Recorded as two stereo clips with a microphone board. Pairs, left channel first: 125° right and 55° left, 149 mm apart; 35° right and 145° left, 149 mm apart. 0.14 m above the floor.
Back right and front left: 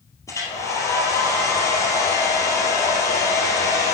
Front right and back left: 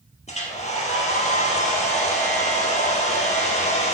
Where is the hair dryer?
60° right, 2 m.